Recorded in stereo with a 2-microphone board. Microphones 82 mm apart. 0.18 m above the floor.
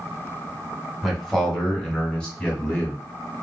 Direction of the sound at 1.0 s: Centre (ahead or behind).